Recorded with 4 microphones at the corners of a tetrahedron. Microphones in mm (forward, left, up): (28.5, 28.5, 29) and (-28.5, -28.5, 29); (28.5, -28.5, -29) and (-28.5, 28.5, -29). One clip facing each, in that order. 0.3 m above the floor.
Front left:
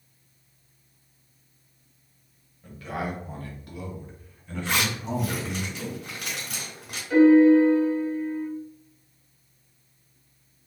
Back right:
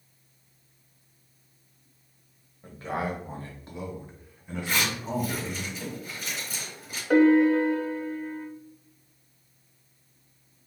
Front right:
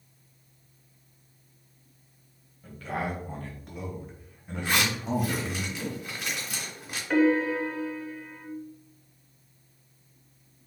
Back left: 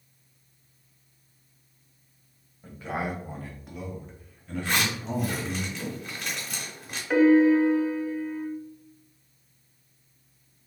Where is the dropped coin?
I don't hear a dropped coin.